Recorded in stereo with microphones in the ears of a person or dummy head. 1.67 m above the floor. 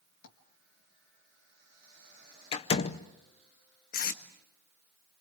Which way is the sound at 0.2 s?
70° left (ahead or behind).